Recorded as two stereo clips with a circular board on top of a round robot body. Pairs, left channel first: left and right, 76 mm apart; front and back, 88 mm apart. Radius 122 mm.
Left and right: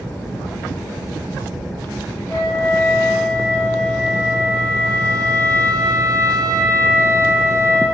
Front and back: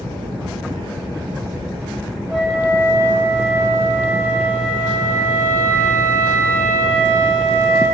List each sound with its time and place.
2.3 s a flute: 110° left, 1.2 m